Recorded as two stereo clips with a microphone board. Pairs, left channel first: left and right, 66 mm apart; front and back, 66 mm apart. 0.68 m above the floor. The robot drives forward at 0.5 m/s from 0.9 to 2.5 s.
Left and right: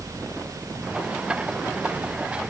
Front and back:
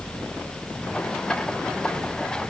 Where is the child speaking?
I don't hear a child speaking.